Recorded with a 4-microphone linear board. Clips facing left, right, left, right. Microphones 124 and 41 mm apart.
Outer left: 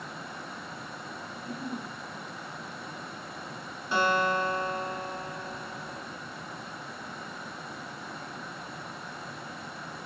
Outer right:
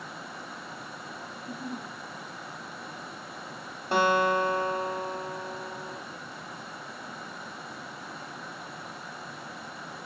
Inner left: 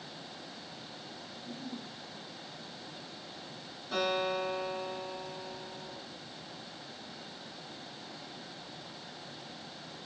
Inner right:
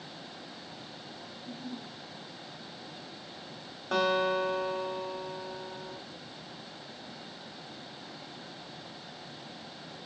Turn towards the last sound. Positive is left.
turn(degrees=-60)  # may be behind; listen again after turning